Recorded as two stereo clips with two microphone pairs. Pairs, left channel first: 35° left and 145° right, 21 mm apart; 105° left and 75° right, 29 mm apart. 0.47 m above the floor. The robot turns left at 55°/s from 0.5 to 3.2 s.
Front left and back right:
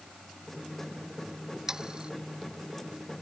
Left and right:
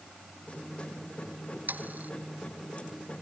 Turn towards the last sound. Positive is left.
turn(degrees=-165)